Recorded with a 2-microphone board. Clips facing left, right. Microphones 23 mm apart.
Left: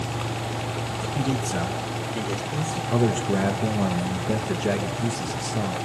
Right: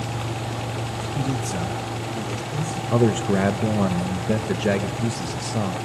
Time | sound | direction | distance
1.1 | a man speaking | 10° left (ahead or behind) | 3 m
2.9 | a man speaking | 20° right (ahead or behind) | 0.9 m